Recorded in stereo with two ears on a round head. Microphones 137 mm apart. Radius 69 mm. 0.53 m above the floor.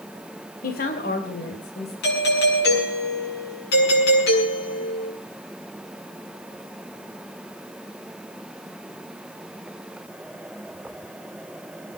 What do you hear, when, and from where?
0.6 s a woman speaking: 55° left (ahead or behind), 2 m; by 1.9 s 70° left (ahead or behind), 3.5 m
2.0 s a doorbell: 70° left (ahead or behind), 8 m